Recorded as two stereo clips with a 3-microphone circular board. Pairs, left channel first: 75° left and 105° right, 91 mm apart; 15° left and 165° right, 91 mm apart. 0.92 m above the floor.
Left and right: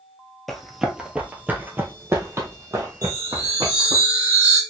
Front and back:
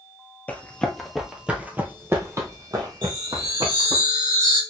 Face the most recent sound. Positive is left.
turn(degrees=-150)